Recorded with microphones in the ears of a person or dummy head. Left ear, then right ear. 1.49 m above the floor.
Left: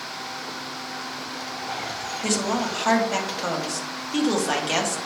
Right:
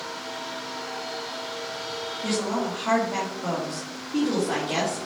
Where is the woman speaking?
70° left (ahead or behind), 1.8 m.